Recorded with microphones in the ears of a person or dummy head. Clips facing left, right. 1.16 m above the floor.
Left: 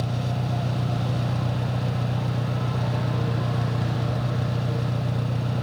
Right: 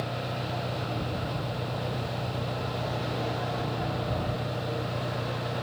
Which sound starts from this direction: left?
An engine running, at 0.0 s.